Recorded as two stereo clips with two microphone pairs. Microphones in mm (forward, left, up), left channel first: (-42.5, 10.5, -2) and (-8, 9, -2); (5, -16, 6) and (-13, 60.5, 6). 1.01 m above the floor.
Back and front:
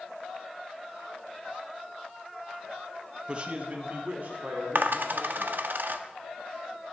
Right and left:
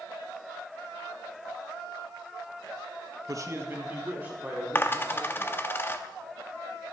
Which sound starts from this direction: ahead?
A dropped coin, at 4.8 s.